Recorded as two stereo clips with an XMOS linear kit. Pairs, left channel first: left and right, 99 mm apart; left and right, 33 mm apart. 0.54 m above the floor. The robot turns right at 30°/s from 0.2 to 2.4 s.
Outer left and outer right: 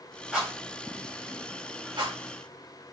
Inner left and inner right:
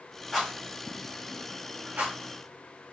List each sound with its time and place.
0.3 s a rattle: 5° right (ahead or behind), 2 m; by 2.1 s 60° right (ahead or behind), 2 m